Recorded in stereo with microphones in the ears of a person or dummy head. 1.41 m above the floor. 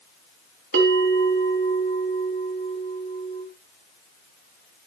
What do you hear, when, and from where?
0.7 s a bell: 55° right (ahead or behind), 3 m